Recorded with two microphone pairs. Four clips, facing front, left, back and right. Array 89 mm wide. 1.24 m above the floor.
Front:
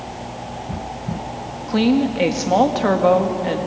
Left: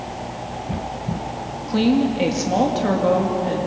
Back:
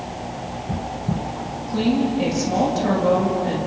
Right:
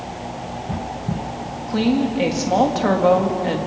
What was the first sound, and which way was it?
A woman speaking, 10° right.